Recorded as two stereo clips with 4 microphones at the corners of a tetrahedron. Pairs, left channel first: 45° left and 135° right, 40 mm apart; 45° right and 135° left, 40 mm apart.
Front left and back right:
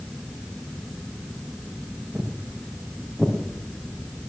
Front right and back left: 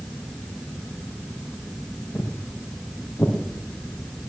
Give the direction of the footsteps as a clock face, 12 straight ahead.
2 o'clock.